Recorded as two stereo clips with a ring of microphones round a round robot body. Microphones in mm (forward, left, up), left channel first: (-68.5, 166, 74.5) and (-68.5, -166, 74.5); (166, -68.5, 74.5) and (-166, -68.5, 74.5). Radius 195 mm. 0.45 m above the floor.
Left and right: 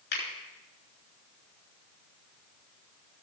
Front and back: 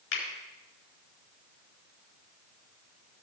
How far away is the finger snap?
About 5.5 m.